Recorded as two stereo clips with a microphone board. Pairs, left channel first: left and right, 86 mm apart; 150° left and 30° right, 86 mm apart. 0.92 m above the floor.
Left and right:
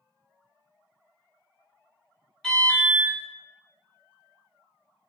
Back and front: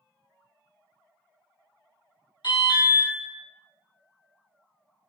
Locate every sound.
2.4 s an alarm: 170° left, 1.5 m